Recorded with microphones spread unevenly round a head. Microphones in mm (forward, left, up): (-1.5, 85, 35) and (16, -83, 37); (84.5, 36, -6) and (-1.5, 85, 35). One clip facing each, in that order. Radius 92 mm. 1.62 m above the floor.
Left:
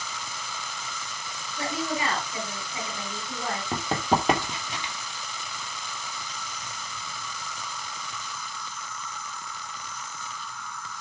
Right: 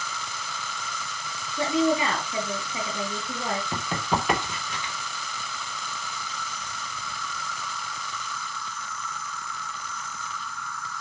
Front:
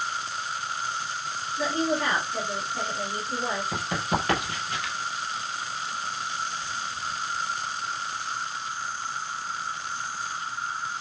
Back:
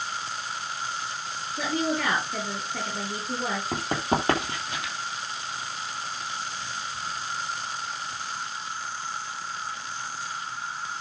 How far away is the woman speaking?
About 9.5 m.